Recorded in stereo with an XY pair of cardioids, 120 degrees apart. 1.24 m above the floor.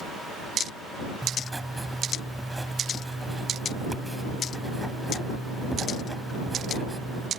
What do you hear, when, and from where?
1.2 s writing: 10° right